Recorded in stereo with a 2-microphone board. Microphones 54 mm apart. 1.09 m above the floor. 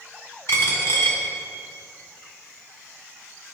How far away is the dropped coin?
About 1.3 m.